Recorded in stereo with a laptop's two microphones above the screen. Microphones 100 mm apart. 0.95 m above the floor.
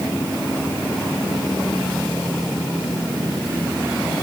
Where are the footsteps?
I don't hear footsteps.